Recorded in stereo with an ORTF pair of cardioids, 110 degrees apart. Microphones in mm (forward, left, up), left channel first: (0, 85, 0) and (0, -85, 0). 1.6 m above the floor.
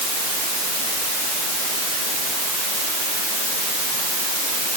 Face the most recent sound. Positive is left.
No sound to turn to.